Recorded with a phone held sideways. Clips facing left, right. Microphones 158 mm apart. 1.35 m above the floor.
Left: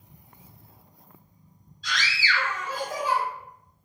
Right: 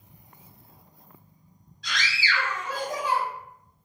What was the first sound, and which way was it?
A scream, 80° right.